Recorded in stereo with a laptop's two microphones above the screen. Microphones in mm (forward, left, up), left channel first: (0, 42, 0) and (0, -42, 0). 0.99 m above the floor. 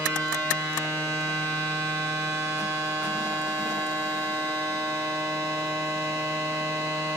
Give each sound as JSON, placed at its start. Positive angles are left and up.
{"t": 0.0, "sound": "a machine running", "side_deg": -40, "distance_m": 2.5}